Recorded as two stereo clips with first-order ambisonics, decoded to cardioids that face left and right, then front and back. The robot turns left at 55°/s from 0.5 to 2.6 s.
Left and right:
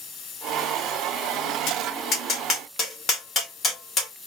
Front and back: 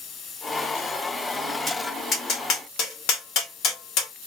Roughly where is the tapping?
Left.